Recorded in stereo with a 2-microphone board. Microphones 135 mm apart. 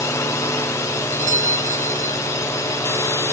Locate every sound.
0.0 s a drone: 20° left (ahead or behind)
1.1 s a doorbell: 65° right (ahead or behind)